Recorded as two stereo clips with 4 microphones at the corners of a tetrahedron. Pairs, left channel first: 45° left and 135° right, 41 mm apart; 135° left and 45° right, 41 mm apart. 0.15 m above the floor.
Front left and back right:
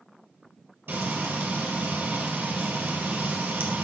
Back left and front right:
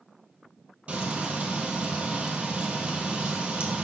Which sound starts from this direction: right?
Frying, at 0.9 s.